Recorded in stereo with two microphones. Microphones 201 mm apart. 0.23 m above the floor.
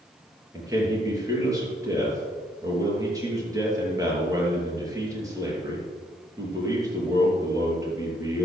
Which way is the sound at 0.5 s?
15° right (ahead or behind).